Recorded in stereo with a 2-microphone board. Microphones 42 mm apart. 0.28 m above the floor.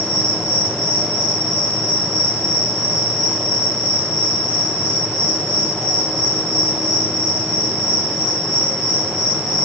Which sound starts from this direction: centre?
An insect, at 0.0 s.